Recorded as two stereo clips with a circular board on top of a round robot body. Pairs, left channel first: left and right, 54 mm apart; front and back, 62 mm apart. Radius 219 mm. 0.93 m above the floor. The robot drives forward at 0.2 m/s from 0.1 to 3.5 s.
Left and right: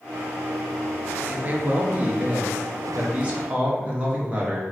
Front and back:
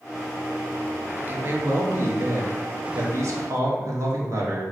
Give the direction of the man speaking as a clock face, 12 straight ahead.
4 o'clock.